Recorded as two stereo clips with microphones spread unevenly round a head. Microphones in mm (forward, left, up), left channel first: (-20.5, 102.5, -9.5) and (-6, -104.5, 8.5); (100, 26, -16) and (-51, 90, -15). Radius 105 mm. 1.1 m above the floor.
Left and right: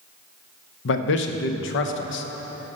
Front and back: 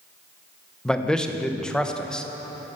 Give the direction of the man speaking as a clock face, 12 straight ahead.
10 o'clock.